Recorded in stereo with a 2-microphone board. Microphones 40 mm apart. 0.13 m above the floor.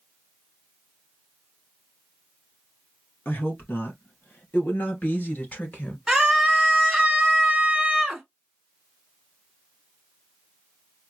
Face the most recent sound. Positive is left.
turn(degrees=-5)  # may be behind; listen again after turning